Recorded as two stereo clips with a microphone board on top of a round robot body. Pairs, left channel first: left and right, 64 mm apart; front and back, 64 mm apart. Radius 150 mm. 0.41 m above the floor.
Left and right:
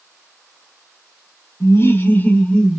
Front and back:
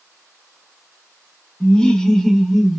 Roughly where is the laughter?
Left.